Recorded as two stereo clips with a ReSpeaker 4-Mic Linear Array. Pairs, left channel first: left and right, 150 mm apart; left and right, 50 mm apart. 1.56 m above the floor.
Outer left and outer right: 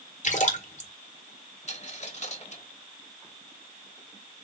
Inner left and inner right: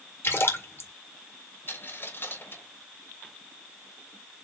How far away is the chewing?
I don't hear chewing.